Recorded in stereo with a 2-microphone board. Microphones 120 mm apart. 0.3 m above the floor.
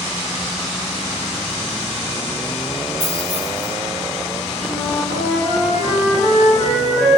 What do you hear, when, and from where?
3.0 s keys jangling: 60° left (ahead or behind), 1.6 m
4.7 s a flute: 60° left (ahead or behind), 2.0 m